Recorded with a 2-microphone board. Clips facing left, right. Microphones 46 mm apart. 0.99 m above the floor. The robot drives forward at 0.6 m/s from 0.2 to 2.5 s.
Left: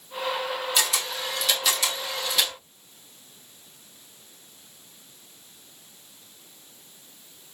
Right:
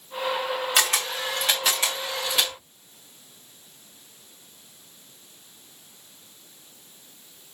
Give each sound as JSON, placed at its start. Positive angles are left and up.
{"t": 0.8, "sound": "a camera shutter", "side_deg": -50, "distance_m": 0.8}